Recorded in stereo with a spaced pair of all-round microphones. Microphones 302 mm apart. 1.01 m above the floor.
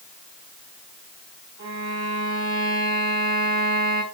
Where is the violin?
70° left (ahead or behind), 4.5 m.